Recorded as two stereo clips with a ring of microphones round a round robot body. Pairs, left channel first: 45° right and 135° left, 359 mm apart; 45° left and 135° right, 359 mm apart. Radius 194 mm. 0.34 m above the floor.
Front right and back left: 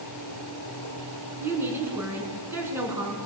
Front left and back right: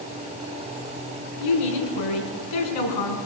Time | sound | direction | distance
1.4 | a woman speaking | 50° left | 4 m